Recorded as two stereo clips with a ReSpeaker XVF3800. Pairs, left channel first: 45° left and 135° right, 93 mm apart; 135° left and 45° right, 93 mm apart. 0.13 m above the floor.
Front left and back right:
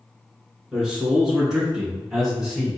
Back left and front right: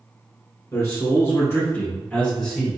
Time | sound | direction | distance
0.7 | a man speaking | 145° left | 1.9 m